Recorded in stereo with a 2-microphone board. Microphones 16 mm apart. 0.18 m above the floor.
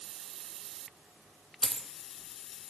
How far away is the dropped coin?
About 0.6 m.